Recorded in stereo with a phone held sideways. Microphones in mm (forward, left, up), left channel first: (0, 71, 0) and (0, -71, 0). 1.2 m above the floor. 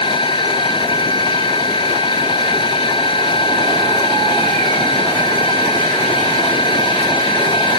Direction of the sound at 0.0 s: 35° left (ahead or behind).